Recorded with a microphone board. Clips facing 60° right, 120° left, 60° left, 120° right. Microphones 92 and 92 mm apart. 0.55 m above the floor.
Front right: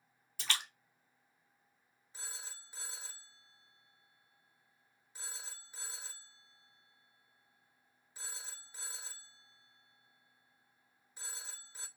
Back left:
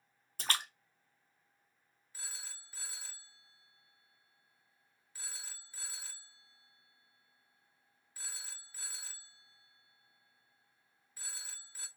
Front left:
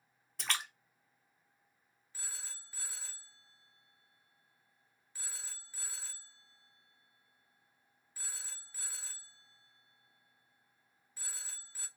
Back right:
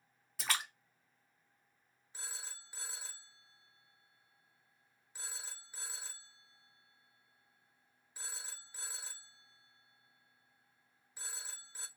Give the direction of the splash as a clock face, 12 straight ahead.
7 o'clock.